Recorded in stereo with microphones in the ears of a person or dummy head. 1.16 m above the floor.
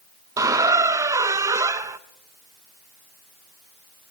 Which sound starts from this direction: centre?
A squeak, at 0.4 s.